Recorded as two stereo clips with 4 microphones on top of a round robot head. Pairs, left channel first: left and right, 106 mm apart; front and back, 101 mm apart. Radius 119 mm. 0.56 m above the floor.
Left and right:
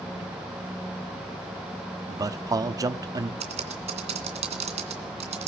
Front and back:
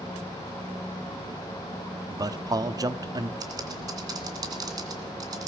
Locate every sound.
2.1 s a man speaking: 140° right, 1.0 m
3.4 s typing on a keyboard: 120° right, 2.5 m